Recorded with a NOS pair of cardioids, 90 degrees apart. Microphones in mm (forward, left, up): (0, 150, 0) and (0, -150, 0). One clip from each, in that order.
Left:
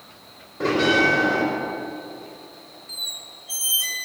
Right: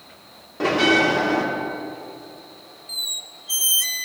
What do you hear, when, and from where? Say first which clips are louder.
0.6 s a bell: right 1 dB; 55° right, 2.5 m
2.9 s a squeak: right 3 dB; 20° right, 0.6 m